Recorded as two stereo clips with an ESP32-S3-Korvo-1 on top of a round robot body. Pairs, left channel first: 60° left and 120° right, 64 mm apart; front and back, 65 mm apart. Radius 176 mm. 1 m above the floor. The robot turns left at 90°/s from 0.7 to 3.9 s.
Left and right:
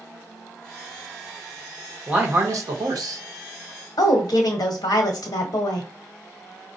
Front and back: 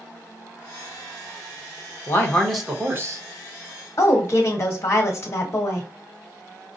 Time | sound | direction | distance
2.1 | a man speaking | 45° right | 1.1 m
4.0 | a woman speaking | 45° left | 1.0 m